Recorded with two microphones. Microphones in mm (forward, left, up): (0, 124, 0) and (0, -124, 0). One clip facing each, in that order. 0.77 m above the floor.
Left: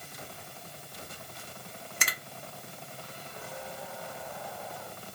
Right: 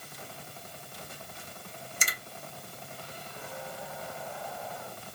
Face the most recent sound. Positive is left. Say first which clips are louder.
# left 2 dB
turn(degrees=60)  # may be behind; listen again after turning